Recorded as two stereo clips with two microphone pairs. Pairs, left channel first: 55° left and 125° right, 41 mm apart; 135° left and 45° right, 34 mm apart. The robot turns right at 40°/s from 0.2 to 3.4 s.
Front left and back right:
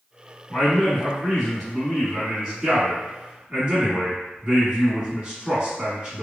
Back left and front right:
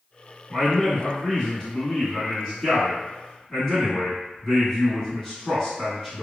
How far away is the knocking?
I don't hear knocking.